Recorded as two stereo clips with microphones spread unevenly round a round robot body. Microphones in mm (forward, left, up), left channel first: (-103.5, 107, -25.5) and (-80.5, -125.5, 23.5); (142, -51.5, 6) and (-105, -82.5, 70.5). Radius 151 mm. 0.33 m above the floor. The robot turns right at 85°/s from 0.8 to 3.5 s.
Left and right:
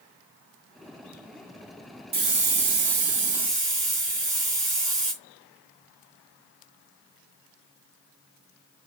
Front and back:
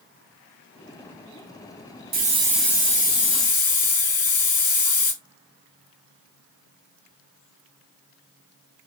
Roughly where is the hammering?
No hammering in this recording.